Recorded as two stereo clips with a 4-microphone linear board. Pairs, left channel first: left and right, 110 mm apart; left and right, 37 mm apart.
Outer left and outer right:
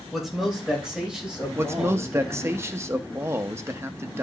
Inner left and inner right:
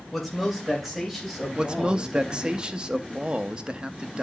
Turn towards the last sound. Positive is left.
turn(degrees=-25)  # may be behind; listen again after turning